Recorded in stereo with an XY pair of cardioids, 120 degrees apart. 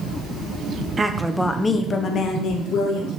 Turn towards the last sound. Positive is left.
turn(degrees=70)